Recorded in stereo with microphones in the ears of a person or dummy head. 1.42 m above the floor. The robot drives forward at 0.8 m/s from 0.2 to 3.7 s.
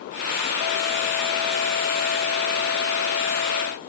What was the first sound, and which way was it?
Only background noise.